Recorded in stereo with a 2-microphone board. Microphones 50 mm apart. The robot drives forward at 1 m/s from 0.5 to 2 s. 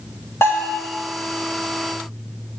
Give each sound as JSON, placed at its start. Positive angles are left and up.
{"t": 0.4, "sound": "a bell", "side_deg": 65, "distance_m": 3.5}